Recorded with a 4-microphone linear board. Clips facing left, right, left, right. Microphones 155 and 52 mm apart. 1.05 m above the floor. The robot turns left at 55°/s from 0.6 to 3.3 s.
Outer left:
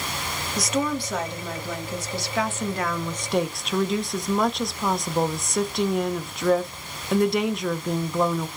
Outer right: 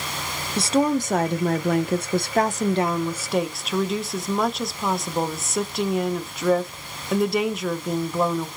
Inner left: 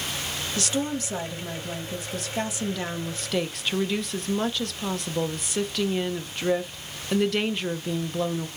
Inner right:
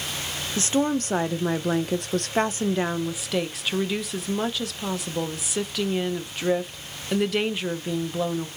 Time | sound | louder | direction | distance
0.6 | a woman speaking | outer right 5 dB, inner right 5 dB | 30° right | 0.6 m